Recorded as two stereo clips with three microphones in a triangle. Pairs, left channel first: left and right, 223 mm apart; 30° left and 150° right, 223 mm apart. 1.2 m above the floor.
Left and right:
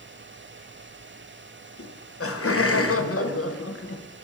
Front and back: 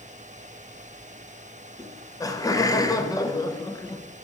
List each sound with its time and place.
1.8 s laughter: 100° left, 0.5 m